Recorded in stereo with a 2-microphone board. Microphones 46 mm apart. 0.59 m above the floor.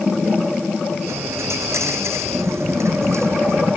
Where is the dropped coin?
85° right.